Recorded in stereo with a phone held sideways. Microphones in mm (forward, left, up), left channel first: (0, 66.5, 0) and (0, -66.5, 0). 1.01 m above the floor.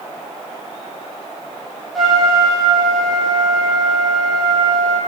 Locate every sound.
1.9 s a trumpet: centre (ahead or behind), 0.6 m